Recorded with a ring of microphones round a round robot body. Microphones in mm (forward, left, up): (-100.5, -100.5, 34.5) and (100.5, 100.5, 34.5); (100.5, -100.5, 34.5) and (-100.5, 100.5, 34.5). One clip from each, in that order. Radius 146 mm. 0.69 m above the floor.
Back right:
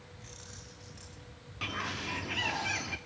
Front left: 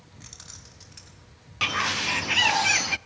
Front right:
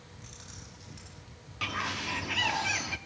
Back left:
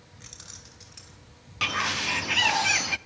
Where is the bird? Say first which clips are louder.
Front left 11 dB, back left 7 dB; 75° left, 0.7 m.